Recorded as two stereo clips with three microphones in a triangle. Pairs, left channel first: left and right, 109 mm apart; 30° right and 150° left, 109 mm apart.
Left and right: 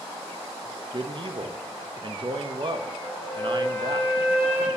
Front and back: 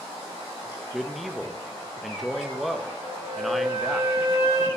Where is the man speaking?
120° right, 0.7 m.